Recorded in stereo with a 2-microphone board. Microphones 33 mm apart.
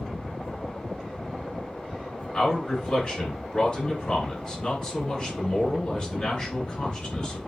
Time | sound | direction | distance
2.3 | a man speaking | 30° left (ahead or behind) | 1.7 m